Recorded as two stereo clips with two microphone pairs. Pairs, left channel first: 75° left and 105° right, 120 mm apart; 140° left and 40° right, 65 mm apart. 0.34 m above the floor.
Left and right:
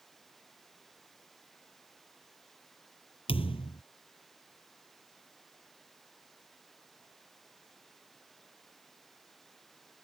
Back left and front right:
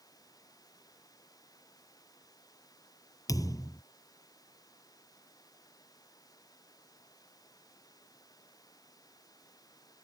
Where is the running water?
160° left.